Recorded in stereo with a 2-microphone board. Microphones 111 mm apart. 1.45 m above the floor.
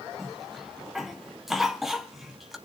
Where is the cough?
Centre (ahead or behind), 2.5 m.